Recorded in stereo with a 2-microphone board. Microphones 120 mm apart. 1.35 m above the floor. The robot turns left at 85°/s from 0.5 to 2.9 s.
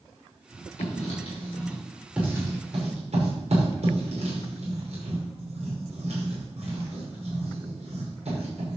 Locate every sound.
0.8 s writing: 75° left (ahead or behind), 5 m; by 8.8 s 70° right (ahead or behind), 5 m